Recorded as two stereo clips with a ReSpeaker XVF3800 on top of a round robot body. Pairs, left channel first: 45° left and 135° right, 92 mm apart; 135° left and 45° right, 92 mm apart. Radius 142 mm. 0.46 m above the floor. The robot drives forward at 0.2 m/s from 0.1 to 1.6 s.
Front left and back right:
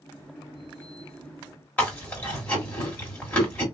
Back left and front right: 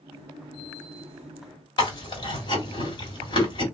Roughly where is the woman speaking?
No woman speaking in this recording.